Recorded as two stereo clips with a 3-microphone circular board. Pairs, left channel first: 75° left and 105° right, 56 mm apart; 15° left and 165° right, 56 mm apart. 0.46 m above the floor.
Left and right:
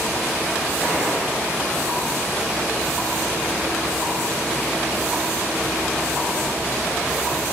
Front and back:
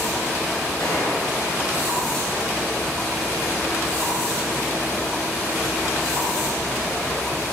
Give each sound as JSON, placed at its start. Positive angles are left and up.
{"t": 0.8, "sound": "a gunshot", "azimuth_deg": 20, "distance_m": 6.5}